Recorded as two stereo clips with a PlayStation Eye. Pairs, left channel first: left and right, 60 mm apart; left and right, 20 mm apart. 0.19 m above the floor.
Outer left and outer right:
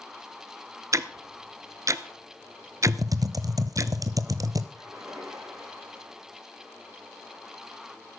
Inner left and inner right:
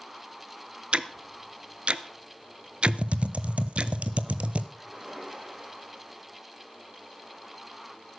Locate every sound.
0.9 s ticking: 60° right (ahead or behind), 0.6 m
2.9 s typing on a keyboard: 85° right, 0.7 m
4.7 s a splash: 60° right (ahead or behind), 8 m